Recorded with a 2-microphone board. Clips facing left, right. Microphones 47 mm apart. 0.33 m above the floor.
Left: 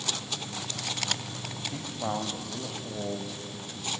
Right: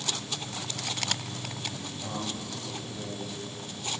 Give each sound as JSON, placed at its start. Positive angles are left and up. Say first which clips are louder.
{"t": 1.7, "sound": "a man speaking", "louder": "left 4 dB", "side_deg": 50, "distance_m": 2.0}